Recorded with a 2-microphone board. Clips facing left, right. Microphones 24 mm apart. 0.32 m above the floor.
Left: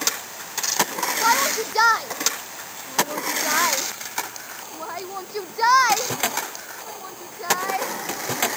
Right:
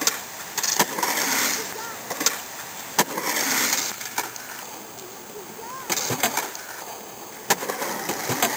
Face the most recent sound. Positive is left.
turn(degrees=80)